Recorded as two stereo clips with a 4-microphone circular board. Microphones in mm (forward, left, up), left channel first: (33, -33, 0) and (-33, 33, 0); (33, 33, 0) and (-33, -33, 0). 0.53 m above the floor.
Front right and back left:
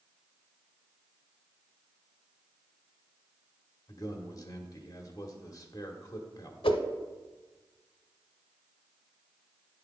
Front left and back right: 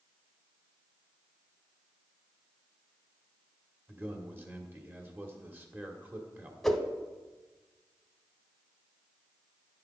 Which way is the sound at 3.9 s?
75° right.